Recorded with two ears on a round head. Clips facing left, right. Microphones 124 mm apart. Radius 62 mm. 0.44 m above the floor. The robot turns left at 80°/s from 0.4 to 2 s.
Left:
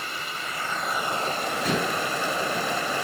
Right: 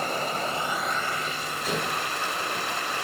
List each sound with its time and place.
0.0 s running water: 145° right, 0.7 m; by 3.0 s 90° left, 0.7 m
1.6 s dishes clattering: 45° left (ahead or behind), 4.5 m; by 2.0 s 75° left (ahead or behind), 4.5 m